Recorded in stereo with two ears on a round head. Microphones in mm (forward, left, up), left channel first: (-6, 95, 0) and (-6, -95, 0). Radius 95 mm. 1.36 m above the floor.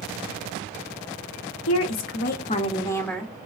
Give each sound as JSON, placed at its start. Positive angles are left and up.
{"t": 1.7, "sound": "a woman speaking", "side_deg": 70, "distance_m": 0.6}